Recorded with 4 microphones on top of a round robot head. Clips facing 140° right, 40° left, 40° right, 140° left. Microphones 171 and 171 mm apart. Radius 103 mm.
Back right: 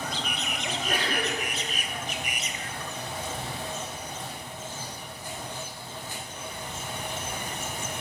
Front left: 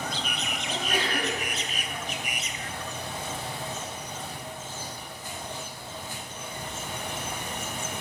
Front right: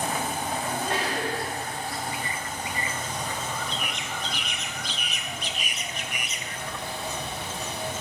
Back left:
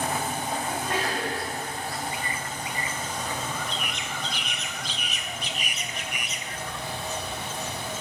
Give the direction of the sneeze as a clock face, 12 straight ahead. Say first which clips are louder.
Front left 1 dB, front right 1 dB; 3 o'clock.